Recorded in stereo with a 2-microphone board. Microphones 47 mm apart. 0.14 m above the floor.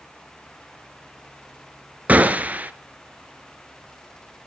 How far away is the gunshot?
About 0.8 m.